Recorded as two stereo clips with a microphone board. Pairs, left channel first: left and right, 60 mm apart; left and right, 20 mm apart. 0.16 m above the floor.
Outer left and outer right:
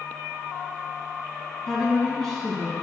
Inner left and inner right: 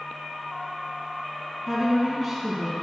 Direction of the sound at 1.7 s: 10° left (ahead or behind).